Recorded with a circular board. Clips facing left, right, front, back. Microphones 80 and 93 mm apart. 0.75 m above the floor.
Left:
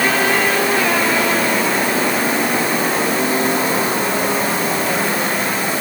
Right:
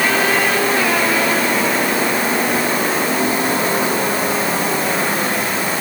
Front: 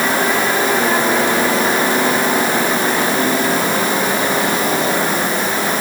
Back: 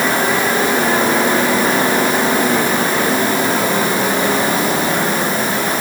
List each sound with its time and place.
Only background noise.